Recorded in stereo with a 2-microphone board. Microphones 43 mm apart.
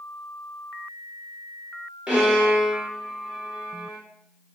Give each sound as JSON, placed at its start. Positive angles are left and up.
{"t": 2.1, "sound": "a violin", "side_deg": -20, "distance_m": 2.5}